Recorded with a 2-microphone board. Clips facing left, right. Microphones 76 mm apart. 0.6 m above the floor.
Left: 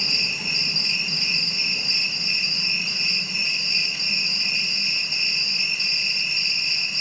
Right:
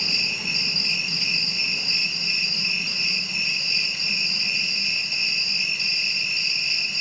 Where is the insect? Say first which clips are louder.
Even; 20° left (ahead or behind), 1.0 m.